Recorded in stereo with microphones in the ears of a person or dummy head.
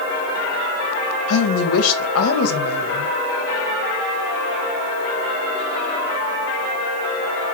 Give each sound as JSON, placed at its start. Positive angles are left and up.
{"t": 1.3, "sound": "a woman speaking", "side_deg": 85, "distance_m": 0.8}